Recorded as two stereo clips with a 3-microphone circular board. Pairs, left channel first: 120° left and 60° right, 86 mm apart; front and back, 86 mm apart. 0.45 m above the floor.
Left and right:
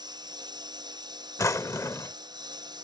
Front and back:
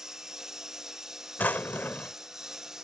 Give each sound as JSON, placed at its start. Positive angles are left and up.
{"t": 0.0, "sound": "a lawn mower", "azimuth_deg": -95}
{"t": 1.4, "sound": "a drawer", "azimuth_deg": 70}